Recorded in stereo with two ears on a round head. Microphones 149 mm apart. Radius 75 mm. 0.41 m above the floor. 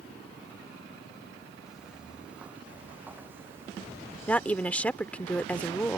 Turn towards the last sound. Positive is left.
turn(degrees=10)  # may be behind; listen again after turning